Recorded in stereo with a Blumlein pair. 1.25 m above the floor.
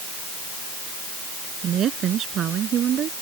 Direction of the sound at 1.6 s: 30° right.